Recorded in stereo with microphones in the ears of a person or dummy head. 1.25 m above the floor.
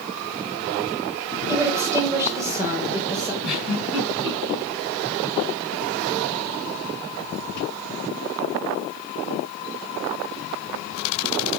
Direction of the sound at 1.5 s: 15° right (ahead or behind).